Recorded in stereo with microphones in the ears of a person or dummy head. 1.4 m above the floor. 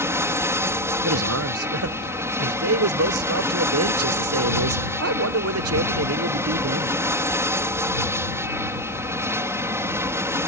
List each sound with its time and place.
0.0 s an aircraft: 10° right (ahead or behind)
1.0 s a man speaking: 80° right